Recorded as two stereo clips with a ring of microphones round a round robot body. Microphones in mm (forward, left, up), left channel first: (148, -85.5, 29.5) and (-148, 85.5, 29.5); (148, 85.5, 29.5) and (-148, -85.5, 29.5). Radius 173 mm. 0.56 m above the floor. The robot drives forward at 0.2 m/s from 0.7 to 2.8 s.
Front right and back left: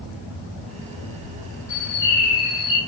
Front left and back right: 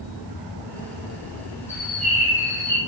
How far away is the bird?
About 0.5 m.